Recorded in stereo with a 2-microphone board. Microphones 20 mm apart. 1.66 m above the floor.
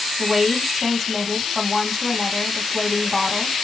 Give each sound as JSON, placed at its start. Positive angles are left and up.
{"t": 0.2, "sound": "a woman speaking", "side_deg": 0, "distance_m": 2.0}